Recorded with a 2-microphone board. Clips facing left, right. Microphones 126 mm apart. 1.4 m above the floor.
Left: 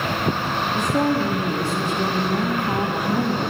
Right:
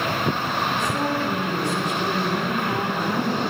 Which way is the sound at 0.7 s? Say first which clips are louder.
Left 4 dB; 40° left (ahead or behind).